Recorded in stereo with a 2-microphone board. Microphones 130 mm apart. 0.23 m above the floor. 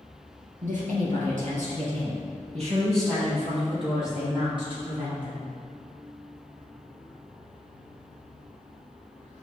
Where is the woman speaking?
75° right (ahead or behind), 3.5 m; by 5.5 s 40° right (ahead or behind), 8.5 m.